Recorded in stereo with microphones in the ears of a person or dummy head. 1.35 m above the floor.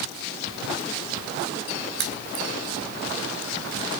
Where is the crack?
70° right (ahead or behind), 4 m.